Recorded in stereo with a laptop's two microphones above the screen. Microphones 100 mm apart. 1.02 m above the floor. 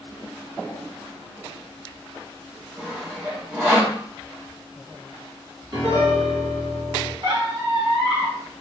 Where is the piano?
50° right (ahead or behind), 1.6 m.